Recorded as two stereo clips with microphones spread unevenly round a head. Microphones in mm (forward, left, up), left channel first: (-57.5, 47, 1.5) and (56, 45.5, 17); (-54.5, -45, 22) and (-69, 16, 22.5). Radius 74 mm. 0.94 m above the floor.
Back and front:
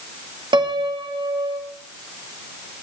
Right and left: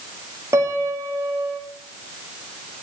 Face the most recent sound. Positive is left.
turn(degrees=45)